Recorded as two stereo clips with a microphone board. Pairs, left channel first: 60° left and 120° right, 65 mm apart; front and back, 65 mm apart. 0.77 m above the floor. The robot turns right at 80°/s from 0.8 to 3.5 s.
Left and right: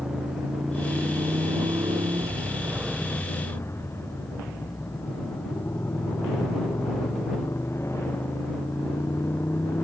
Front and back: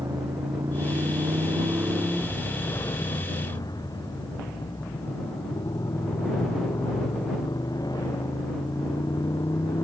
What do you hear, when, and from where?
0.0 s a motorcycle: 155° left; by 9.8 s 10° left